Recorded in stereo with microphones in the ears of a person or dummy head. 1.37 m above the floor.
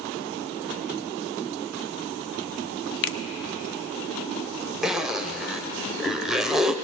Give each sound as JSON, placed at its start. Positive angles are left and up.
{"t": 3.0, "sound": "a finger snap", "side_deg": 55, "distance_m": 0.7}
{"t": 4.8, "sound": "a zipper", "side_deg": 0, "distance_m": 0.6}